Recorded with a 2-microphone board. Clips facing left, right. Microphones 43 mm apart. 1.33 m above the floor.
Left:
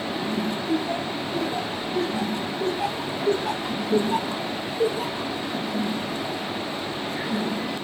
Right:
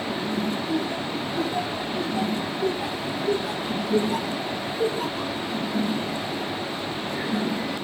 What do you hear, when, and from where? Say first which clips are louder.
0.7 s laughter: left 1 dB; 50° left (ahead or behind), 2 m; by 5.3 s centre (ahead or behind), 1.4 m